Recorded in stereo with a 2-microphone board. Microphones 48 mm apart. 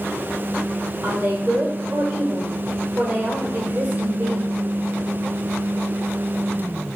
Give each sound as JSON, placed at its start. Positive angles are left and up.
{"t": 1.0, "sound": "a woman speaking", "side_deg": -35, "distance_m": 1.0}